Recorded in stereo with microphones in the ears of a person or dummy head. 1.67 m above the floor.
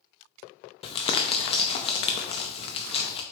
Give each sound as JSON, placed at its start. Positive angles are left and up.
{"t": 0.8, "sound": "crumpling", "side_deg": 35, "distance_m": 0.5}